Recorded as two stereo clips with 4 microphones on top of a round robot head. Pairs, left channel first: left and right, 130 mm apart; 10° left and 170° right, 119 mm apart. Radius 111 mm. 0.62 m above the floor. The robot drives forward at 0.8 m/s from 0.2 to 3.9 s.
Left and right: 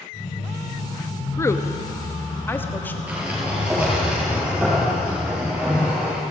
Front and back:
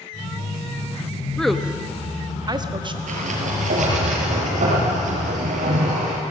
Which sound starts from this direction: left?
A woman speaking, at 1.4 s.